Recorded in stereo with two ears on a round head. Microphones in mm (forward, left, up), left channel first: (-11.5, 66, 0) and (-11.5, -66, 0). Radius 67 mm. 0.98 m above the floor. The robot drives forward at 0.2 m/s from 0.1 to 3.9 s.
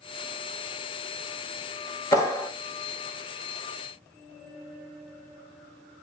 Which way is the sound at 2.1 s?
20° left (ahead or behind).